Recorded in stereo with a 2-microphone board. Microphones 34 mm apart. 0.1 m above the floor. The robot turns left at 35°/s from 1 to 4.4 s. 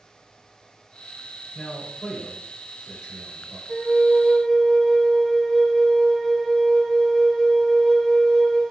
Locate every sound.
1.6 s a man speaking: 20° left, 1.9 m; by 3.6 s 50° right, 1.9 m
3.7 s a flute: 35° left (ahead or behind), 1.0 m; by 8.6 s 10° left (ahead or behind), 1.0 m